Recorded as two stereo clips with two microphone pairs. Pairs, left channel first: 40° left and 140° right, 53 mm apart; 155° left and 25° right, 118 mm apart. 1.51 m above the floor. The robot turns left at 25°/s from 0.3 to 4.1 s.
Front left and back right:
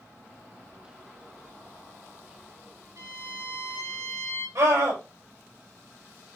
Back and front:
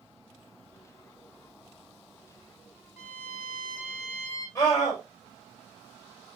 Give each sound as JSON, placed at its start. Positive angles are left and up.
{"t": 3.0, "sound": "a violin", "azimuth_deg": -135, "distance_m": 5.0}
{"t": 4.5, "sound": "a scream", "azimuth_deg": -140, "distance_m": 5.5}